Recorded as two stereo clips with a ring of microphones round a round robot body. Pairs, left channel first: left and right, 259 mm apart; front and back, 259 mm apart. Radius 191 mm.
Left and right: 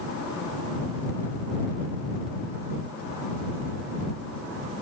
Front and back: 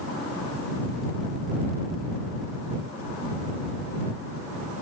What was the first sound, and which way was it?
Only background noise.